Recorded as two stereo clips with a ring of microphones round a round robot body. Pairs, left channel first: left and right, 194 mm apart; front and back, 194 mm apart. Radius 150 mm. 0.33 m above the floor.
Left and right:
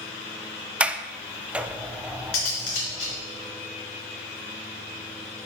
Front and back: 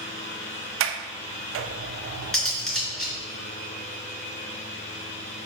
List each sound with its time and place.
0.8 s a sliding door: 175° right, 0.5 m
2.3 s cutlery clinking: 85° left, 3 m